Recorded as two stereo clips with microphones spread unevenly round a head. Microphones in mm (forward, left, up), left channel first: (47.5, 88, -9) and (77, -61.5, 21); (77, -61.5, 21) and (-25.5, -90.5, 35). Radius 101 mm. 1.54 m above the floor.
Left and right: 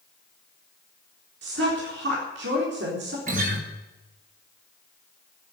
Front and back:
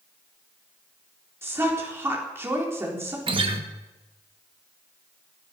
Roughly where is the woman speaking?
Right.